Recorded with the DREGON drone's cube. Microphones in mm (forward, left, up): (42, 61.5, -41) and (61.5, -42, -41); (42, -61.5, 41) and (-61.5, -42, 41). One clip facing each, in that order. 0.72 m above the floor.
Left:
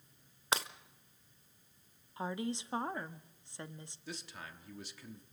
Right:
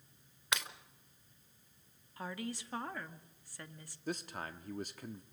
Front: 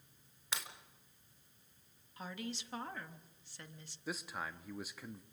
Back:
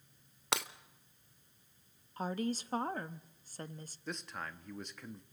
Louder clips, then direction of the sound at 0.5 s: Left 4 dB, back 8 dB; 155° left.